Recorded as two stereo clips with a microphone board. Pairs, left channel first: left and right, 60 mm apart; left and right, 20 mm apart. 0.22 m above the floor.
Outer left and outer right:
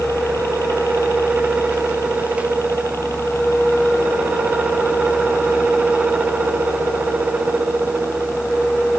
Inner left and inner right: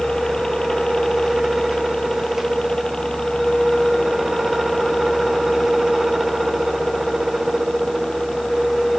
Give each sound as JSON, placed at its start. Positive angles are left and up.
{"t": 0.0, "sound": "a helicopter", "side_deg": 55}